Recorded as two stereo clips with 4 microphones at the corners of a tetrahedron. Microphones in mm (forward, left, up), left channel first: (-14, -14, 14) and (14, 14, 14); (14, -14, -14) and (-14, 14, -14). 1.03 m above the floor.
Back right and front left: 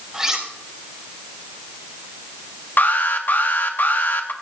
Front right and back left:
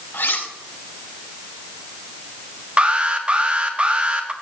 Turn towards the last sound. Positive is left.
turn(degrees=-170)